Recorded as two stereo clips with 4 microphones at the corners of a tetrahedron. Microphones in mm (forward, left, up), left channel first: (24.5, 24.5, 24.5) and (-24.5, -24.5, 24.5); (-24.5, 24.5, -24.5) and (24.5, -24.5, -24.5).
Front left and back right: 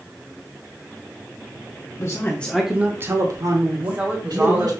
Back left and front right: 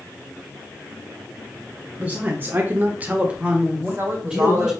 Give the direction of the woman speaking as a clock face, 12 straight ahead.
3 o'clock.